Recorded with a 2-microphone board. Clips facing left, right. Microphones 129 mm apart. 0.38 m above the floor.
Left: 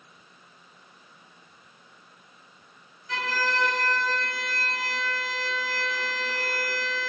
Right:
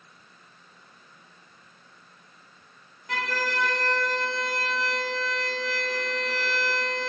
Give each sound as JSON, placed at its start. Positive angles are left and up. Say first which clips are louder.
{"t": 3.1, "sound": "a violin", "louder": "left 1 dB", "side_deg": -65, "distance_m": 0.6}